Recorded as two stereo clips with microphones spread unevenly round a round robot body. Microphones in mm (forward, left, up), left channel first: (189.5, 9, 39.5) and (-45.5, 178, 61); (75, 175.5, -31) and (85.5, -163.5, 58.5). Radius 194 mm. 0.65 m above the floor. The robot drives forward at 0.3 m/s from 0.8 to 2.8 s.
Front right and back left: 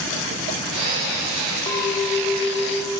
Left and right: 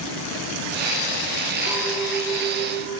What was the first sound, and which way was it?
A clink, 40° left.